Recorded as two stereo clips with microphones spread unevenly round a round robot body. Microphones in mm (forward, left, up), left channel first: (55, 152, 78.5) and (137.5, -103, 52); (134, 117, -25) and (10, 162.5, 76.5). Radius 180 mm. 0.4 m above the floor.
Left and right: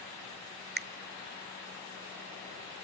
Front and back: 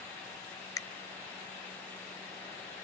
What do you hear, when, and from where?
0.8 s a finger snap: 30° right, 1.0 m